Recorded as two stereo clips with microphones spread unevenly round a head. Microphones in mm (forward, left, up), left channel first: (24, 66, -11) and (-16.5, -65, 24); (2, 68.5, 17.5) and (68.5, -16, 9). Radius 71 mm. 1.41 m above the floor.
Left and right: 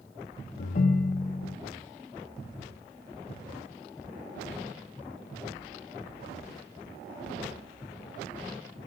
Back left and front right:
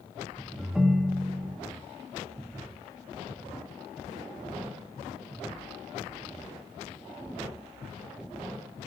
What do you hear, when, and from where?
0.6 s a ringtone: 35° left, 0.5 m